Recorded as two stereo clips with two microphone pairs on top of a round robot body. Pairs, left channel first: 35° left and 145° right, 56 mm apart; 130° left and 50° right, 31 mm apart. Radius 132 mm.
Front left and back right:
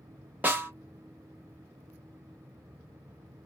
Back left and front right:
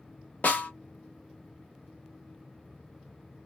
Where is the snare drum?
165° left, 1.0 m.